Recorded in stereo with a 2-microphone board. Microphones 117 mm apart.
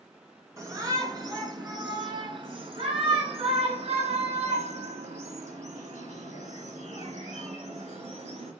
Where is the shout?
25° right (ahead or behind), 4 m; by 8.5 s 70° right (ahead or behind), 5 m.